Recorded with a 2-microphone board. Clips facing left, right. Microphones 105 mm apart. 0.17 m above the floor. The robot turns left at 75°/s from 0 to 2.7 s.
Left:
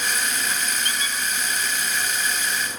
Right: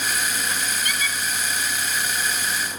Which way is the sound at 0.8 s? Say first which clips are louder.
Right 1 dB; 35° left (ahead or behind).